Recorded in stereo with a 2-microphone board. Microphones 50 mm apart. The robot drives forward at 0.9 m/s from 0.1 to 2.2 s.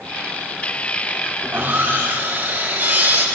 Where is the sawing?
45° right (ahead or behind), 3.5 m; by 3.2 s 35° right (ahead or behind), 4 m.